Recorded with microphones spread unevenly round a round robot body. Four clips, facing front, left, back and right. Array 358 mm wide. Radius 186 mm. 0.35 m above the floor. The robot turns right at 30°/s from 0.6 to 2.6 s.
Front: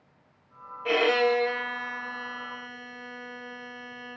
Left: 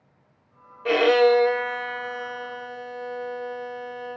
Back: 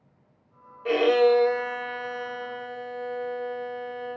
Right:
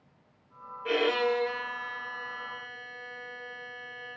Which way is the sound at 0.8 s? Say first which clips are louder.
Left 10 dB, back 4 dB; 70° left.